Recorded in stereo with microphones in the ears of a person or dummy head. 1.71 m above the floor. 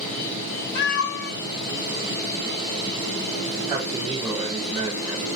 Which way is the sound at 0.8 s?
55° left (ahead or behind).